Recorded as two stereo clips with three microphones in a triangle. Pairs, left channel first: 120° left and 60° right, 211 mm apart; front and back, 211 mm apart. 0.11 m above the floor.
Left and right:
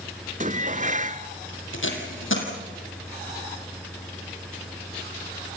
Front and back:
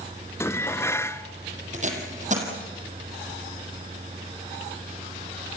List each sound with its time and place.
0.4 s dishes clattering: 70° right, 0.9 m
1.7 s tape being pulled: 130° left, 4.5 m